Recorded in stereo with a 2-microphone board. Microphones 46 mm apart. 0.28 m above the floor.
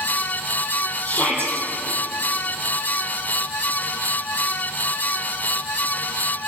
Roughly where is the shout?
Left.